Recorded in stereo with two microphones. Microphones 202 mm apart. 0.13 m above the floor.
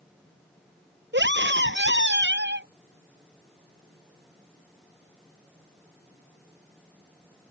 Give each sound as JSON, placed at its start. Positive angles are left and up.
{"t": 1.1, "sound": "a scream", "side_deg": -65}